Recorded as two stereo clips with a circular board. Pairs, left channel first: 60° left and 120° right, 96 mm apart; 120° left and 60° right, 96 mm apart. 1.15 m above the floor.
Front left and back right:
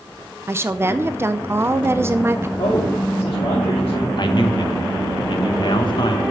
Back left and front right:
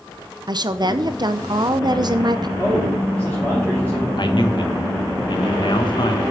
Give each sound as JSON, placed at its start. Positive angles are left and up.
{"t": 0.5, "sound": "a woman speaking", "azimuth_deg": -65, "distance_m": 0.7}
{"t": 2.6, "sound": "a man speaking", "azimuth_deg": 40, "distance_m": 2.5}
{"t": 4.2, "sound": "a man speaking", "azimuth_deg": 90, "distance_m": 1.5}